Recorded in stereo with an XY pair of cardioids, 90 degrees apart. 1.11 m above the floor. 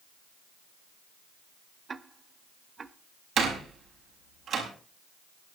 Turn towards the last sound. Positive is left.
turn(degrees=-65)